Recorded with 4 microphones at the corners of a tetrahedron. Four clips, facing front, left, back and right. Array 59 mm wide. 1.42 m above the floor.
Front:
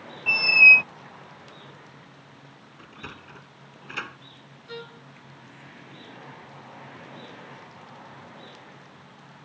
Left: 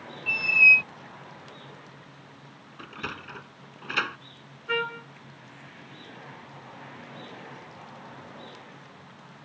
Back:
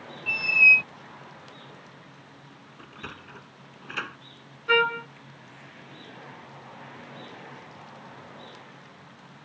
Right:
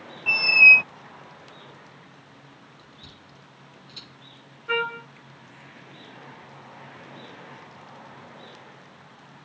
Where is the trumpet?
170° right.